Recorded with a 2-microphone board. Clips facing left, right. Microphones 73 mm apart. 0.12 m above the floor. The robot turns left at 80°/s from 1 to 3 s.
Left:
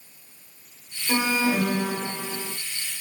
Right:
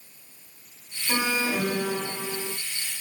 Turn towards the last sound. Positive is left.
turn(degrees=10)